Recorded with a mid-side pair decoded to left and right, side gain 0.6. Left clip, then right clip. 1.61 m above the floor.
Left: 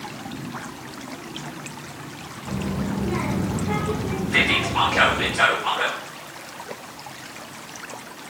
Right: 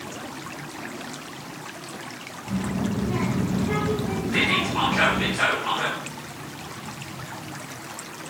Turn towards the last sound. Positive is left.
turn(degrees=30)